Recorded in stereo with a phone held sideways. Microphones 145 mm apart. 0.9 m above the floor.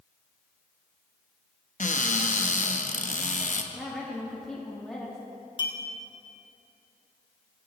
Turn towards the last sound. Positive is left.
turn(degrees=35)  # may be behind; listen again after turning